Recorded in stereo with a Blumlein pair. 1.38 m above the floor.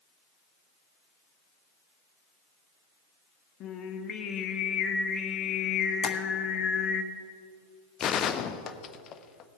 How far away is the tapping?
About 1.1 m.